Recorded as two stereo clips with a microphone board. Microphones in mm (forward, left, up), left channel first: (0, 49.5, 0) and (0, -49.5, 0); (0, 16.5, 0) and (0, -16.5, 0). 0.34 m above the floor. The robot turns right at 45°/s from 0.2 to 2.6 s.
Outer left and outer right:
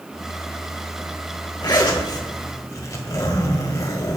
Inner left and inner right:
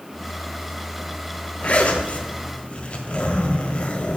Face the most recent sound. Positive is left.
turn(degrees=130)